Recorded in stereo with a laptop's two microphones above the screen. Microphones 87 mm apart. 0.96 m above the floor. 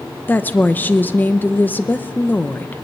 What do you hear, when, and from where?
0.3 s a woman speaking: 20° left (ahead or behind), 0.7 m